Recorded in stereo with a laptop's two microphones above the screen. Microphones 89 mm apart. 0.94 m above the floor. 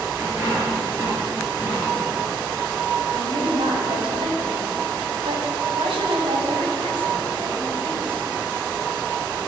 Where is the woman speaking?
80° right, 6 m.